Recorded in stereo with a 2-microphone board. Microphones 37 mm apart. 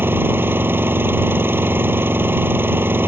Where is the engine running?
65° right (ahead or behind).